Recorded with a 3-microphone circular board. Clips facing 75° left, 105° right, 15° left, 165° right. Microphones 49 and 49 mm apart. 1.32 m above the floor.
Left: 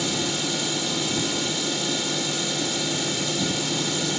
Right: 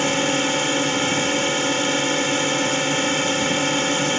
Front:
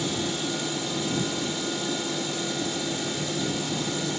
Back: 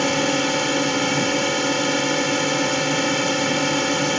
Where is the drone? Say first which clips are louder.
Right 7 dB, back 9 dB; 145° right.